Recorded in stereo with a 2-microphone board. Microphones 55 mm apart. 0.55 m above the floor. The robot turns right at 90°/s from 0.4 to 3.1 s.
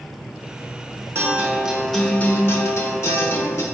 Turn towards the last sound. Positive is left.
turn(degrees=110)